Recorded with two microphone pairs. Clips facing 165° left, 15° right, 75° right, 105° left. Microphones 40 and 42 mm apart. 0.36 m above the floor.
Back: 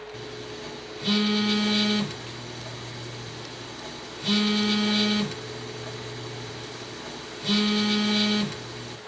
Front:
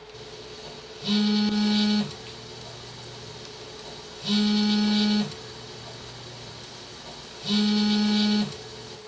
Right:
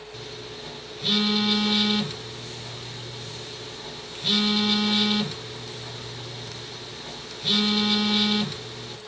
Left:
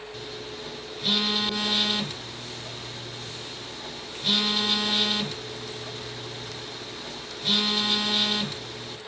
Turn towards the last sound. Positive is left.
turn(degrees=-165)